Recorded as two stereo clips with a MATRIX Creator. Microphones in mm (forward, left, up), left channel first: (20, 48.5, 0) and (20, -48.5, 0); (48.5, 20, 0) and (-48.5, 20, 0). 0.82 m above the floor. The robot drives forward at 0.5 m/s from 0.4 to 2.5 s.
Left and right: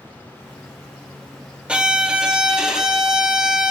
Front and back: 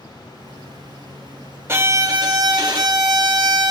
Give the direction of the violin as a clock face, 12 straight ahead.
5 o'clock.